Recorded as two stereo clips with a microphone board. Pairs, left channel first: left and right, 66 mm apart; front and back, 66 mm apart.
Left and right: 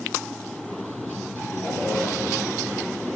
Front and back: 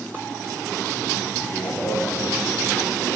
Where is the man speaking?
20° left, 5.5 m.